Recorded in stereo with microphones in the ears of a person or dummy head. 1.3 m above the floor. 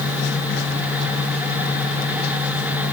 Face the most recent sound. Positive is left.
No sound to turn to.